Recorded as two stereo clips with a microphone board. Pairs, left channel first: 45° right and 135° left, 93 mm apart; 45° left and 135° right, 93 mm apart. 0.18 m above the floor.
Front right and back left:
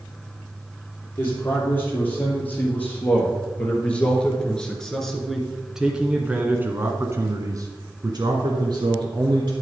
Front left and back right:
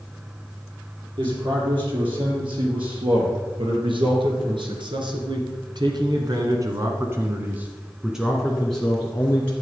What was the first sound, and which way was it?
A man speaking, 110° right.